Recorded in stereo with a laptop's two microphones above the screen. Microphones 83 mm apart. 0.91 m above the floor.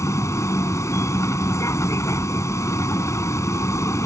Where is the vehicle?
35° left (ahead or behind).